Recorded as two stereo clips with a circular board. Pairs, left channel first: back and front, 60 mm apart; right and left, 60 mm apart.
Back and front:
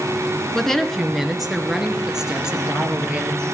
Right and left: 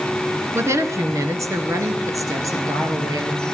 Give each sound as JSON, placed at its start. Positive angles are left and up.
{"t": 0.5, "sound": "a woman speaking", "azimuth_deg": 105, "distance_m": 1.8}